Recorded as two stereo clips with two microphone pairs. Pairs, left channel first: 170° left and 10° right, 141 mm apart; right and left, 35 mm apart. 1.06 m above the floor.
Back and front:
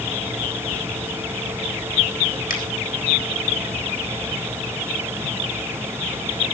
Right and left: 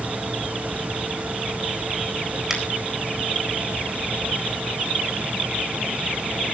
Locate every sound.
2.5 s a finger snap: 170° left, 4 m